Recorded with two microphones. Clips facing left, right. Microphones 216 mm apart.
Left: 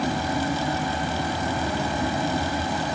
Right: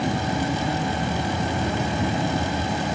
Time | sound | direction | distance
0.0 | an insect | 25° right (ahead or behind) | 0.7 m